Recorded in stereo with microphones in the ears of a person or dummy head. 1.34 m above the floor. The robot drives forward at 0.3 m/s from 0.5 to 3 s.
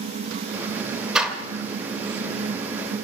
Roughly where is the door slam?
Centre.